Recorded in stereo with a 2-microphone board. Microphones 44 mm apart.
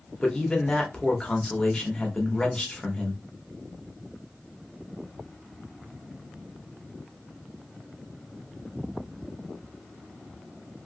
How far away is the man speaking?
About 0.9 m.